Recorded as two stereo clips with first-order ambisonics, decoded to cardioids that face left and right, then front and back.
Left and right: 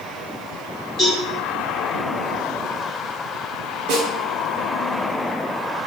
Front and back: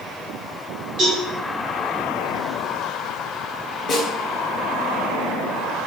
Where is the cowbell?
160° left, 1.8 m.